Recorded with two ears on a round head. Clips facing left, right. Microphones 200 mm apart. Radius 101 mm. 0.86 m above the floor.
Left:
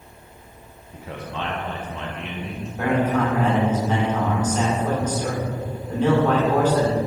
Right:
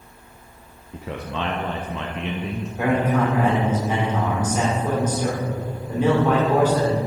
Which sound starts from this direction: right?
A man speaking, at 0.9 s.